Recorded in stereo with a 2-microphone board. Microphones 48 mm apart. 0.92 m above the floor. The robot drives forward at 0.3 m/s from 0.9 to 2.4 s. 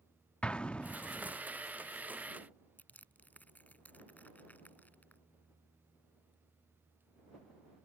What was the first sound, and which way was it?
An explosion, 25° left (ahead or behind).